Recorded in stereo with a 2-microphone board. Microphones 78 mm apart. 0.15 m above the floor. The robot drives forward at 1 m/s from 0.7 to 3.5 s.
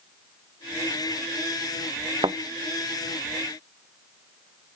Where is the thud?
75° right (ahead or behind).